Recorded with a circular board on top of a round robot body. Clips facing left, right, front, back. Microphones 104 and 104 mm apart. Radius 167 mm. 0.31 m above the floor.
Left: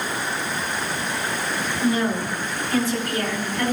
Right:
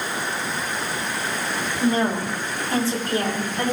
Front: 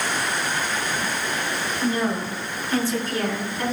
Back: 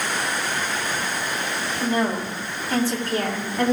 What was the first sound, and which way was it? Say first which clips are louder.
A woman speaking: right 1 dB, back 1 dB; 140° right.